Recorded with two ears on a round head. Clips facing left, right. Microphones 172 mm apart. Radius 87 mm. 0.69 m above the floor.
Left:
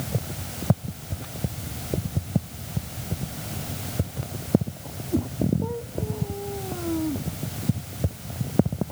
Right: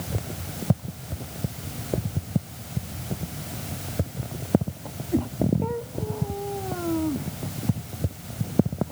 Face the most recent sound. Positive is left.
No sound to turn to.